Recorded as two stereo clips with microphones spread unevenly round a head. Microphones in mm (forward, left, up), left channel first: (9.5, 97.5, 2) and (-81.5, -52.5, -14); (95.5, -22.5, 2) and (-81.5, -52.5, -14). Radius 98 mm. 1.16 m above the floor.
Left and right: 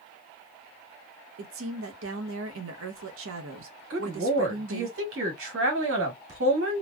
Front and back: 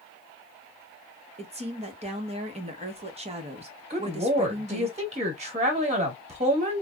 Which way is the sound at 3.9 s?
115° right.